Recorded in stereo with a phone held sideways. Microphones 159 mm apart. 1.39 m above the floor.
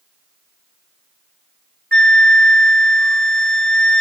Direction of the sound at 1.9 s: 5° left (ahead or behind).